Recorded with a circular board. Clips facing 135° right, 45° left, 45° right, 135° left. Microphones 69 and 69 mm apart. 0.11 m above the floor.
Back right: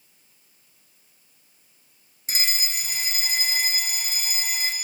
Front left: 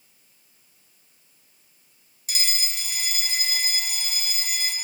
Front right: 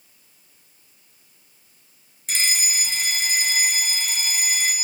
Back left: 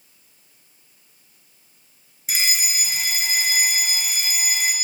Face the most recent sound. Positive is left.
turn(degrees=-145)